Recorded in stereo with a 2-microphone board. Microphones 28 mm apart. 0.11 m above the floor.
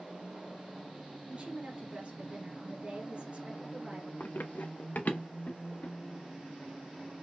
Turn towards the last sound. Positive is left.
turn(degrees=50)  # may be behind; listen again after turning